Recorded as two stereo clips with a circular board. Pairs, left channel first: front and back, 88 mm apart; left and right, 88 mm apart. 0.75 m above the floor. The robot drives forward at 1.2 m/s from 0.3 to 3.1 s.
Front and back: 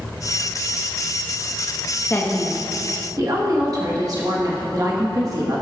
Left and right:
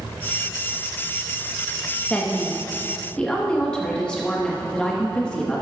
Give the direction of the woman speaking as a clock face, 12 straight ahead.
11 o'clock.